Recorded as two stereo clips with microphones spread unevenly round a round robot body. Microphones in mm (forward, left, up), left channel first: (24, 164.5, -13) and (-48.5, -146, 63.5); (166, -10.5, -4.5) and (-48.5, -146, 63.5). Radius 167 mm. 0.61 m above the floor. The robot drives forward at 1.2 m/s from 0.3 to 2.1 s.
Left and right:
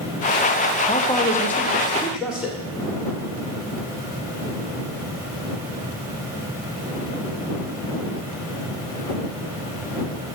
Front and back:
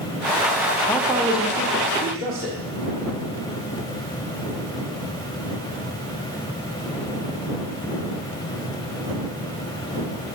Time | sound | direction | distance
0.9 | a man speaking | 80° left | 1.0 m